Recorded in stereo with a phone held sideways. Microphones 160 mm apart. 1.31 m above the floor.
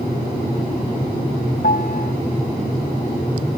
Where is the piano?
70° left (ahead or behind).